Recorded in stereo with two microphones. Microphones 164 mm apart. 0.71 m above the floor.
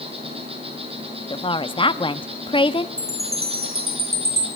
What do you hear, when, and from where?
0.0 s an insect: 35° right (ahead or behind), 6.5 m
1.3 s a woman speaking: 30° left (ahead or behind), 1.0 m
3.0 s a chime: 65° right (ahead or behind), 7 m